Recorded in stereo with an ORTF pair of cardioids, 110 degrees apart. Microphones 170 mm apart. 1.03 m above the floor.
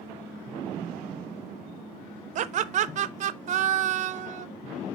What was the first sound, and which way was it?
Laughter, 50° right.